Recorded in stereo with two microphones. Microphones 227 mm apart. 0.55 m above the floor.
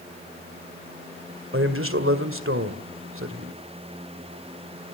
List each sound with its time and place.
1.5 s a man speaking: 65° right (ahead or behind), 1.9 m